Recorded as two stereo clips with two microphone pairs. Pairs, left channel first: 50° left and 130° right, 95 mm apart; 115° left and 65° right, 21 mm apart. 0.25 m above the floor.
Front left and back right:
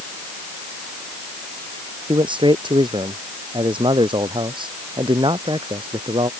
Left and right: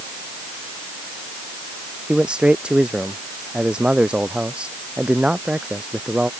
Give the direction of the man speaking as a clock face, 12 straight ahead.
3 o'clock.